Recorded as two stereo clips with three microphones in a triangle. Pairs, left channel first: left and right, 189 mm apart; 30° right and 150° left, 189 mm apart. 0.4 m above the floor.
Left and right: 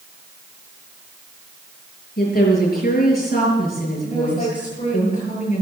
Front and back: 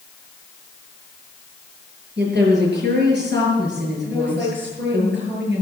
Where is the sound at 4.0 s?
140° left, 8.5 m.